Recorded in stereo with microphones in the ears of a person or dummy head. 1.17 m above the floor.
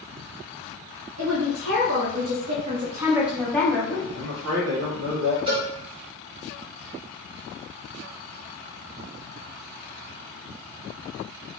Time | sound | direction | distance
1.2 | a woman speaking | 80° right | 1.0 m
4.1 | a man speaking | 65° right (ahead or behind) | 1.7 m
5.5 | a cowbell | 30° right (ahead or behind) | 1.6 m